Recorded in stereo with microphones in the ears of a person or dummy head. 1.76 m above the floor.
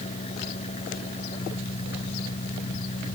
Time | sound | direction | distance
0.0 | an engine running | 40° left (ahead or behind) | ?